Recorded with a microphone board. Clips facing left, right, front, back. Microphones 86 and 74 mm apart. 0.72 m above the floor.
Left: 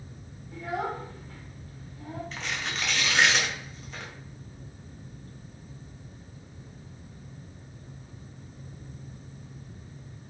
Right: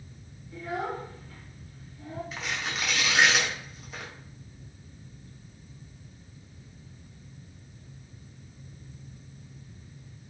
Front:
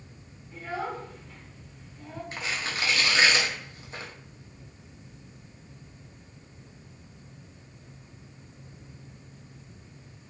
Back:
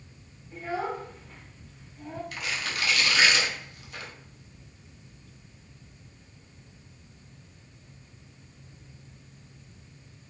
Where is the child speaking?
115° left, 1.3 m.